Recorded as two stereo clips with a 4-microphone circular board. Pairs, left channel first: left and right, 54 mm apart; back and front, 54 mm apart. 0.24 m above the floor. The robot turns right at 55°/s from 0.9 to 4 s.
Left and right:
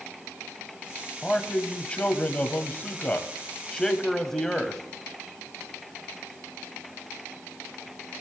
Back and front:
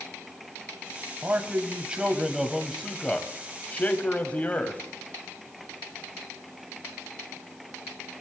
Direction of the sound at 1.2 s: 15° left.